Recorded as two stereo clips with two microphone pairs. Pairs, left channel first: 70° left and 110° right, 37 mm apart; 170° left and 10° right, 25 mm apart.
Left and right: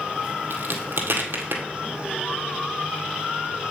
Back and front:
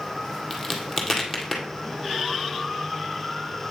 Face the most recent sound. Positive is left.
turn(degrees=-95)